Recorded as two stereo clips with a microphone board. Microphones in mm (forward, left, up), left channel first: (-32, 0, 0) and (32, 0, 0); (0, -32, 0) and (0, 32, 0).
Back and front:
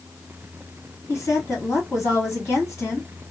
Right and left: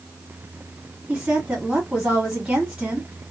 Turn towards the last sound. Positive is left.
turn(degrees=150)